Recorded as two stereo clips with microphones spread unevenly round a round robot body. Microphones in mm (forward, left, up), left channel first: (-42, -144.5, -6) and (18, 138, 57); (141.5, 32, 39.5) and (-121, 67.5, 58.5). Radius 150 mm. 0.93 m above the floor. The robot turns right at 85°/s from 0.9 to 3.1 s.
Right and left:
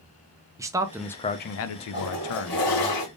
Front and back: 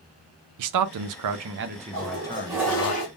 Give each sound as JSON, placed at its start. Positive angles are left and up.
{"t": 0.6, "sound": "a man speaking", "azimuth_deg": 160, "distance_m": 0.5}
{"t": 1.9, "sound": "a toilet flushing", "azimuth_deg": -160, "distance_m": 1.8}